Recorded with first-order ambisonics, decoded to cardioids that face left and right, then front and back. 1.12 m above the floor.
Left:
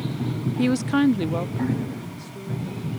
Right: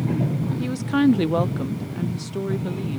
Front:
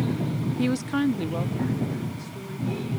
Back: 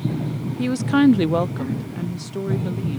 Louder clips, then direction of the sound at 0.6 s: Left 1 dB, back 8 dB; 85° left.